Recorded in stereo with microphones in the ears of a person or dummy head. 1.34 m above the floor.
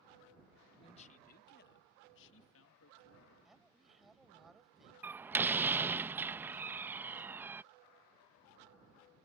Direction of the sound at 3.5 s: Centre (ahead or behind).